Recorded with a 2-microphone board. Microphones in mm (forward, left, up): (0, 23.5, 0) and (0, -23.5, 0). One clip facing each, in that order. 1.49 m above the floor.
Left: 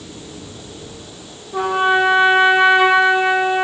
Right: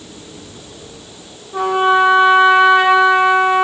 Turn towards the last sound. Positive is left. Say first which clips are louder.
# right 3 dB
turn(degrees=0)  # may be behind; listen again after turning